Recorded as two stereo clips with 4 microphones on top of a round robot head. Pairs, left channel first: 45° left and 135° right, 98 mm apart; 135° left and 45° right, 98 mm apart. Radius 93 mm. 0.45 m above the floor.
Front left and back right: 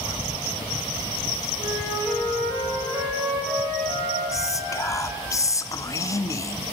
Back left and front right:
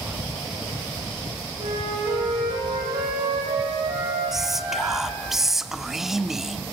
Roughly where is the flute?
Right.